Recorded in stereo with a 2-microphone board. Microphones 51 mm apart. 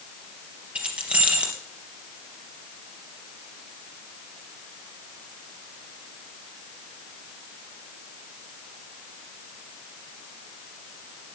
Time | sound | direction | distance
0.8 | keys jangling | 25° right (ahead or behind) | 3.5 m